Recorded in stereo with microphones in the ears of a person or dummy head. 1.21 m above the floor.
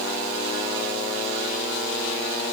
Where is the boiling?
I don't hear boiling.